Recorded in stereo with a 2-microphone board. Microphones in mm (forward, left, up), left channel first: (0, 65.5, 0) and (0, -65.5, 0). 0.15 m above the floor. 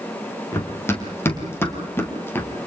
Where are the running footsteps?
20° left (ahead or behind), 5 m; by 2.5 s 15° left (ahead or behind), 3.5 m.